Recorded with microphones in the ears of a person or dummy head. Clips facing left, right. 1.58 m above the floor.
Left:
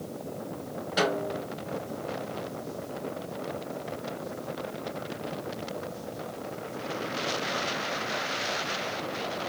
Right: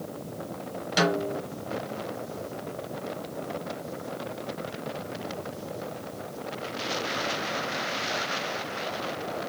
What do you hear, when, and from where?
1.0 s a snare drum: 40° right (ahead or behind), 1.7 m